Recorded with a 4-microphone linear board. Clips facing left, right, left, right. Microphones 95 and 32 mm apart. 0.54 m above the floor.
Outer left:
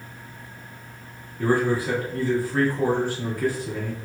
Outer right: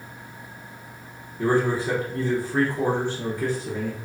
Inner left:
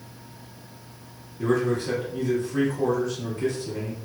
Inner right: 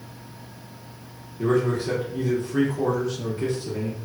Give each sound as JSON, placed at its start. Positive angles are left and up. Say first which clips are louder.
{"t": 1.4, "sound": "a man speaking", "louder": "even, inner right 1 dB", "side_deg": -25, "distance_m": 0.9}